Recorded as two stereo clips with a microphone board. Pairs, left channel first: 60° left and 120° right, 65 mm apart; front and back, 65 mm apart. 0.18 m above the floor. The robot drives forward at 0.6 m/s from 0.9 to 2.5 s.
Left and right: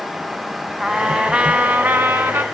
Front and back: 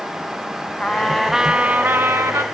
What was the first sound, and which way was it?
A trumpet, 50° right.